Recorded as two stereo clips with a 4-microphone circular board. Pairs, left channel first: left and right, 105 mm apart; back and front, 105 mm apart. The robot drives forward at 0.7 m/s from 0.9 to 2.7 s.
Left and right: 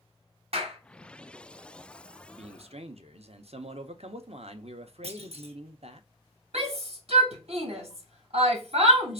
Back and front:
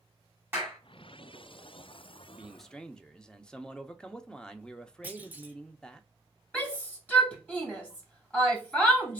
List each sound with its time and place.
0.5 s a clap: 70° right, 2.5 m
2.4 s a man speaking: 80° right, 0.7 m; by 6.0 s 100° right, 0.7 m
5.0 s a clunk: 75° right, 0.8 m
6.5 s a shout: 105° right, 2.5 m